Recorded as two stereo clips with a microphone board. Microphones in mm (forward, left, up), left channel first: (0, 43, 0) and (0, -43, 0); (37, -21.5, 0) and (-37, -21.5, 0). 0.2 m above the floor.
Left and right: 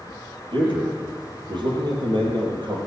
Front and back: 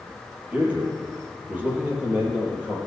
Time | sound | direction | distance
0.5 | a man speaking | 110° right | 4.5 m